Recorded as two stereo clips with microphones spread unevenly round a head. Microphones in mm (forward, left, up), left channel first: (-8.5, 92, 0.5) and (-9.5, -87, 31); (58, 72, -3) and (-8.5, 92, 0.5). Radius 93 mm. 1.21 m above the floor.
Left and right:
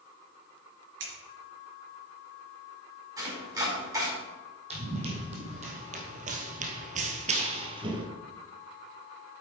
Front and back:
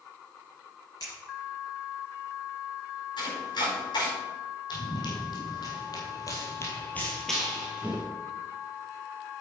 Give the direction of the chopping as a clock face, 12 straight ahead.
1 o'clock.